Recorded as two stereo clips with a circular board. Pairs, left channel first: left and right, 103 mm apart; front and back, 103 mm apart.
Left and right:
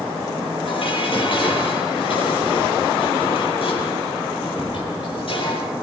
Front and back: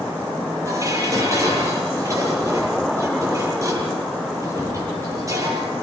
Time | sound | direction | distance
0.7 | dishes clattering | 120° left | 9.5 m